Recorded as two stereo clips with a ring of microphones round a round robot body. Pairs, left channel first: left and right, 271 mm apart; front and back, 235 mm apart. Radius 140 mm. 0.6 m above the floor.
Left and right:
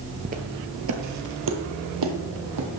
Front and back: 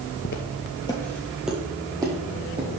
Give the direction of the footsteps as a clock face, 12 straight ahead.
1 o'clock.